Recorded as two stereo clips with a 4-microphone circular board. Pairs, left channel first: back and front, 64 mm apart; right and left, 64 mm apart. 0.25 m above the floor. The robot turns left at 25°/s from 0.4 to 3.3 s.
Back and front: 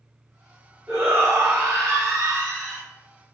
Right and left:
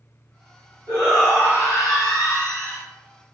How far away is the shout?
About 1.3 m.